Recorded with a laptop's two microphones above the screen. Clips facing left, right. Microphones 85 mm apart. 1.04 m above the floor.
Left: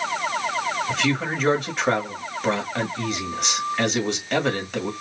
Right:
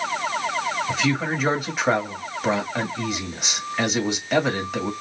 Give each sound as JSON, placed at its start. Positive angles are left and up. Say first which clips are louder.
{"t": 0.9, "sound": "a man speaking", "louder": "right 1 dB", "side_deg": -5, "distance_m": 1.6}